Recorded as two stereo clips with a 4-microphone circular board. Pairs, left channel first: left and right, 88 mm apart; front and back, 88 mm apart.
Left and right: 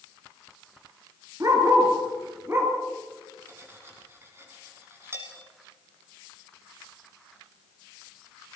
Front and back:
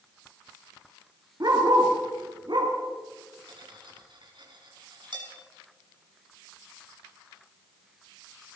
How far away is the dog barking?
About 4 m.